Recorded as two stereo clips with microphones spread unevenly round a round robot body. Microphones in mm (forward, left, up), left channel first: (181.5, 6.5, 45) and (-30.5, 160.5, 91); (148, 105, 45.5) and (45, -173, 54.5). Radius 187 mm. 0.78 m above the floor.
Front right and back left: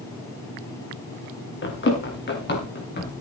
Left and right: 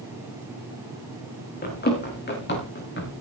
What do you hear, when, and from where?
1.6 s running footsteps: 10° left, 5.5 m; by 3.1 s 15° left, 6.5 m